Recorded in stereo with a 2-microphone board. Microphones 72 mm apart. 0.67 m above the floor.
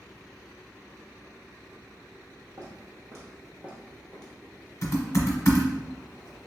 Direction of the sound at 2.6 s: 60° right (ahead or behind).